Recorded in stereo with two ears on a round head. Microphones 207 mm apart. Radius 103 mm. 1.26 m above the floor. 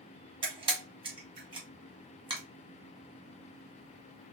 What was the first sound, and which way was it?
A camera shutter, 20° right (ahead or behind).